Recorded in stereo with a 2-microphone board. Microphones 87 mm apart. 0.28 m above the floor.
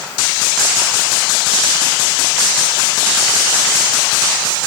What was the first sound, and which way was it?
Only background noise.